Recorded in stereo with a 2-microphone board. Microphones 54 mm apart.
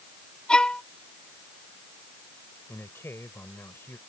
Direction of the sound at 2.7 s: 50° left (ahead or behind).